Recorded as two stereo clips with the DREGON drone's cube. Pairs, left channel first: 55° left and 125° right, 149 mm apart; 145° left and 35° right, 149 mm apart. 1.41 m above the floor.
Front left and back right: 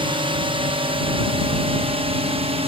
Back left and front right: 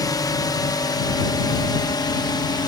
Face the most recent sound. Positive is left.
turn(degrees=-160)